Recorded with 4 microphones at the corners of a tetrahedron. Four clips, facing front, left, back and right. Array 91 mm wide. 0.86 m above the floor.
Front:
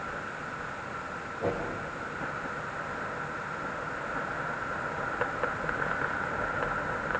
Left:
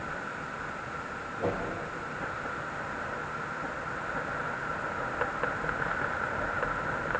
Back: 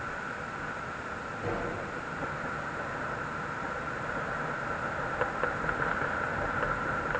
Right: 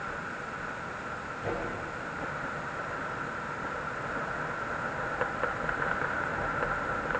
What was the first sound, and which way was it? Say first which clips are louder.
A whoosh: left 3 dB, front 4 dB; 60° left.